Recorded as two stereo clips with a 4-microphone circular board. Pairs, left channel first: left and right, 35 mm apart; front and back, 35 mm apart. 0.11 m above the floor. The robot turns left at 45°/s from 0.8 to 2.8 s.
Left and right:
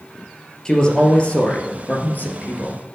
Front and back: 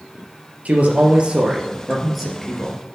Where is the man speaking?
155° left, 2.5 m; by 2.8 s 65° left, 2.5 m.